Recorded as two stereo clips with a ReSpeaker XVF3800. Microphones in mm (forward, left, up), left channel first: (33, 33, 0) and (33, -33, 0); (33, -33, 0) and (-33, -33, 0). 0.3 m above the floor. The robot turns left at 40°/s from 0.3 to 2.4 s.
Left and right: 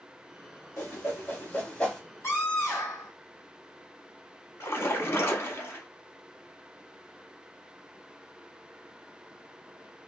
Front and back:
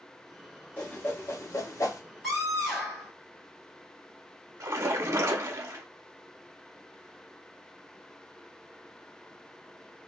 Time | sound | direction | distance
0.8 | a whoosh | 60° left | 1.0 m
2.2 | a scream | 85° left | 1.6 m
4.6 | a splash | 140° left | 0.7 m